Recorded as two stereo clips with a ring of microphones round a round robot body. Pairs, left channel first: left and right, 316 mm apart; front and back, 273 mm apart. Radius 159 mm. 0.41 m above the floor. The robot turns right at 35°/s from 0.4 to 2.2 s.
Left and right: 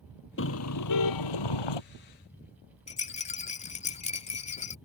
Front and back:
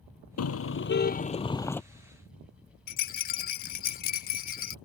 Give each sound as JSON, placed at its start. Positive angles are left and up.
{"t": 0.4, "sound": "a car horn", "azimuth_deg": 35}
{"t": 2.9, "sound": "a rattle", "azimuth_deg": 35}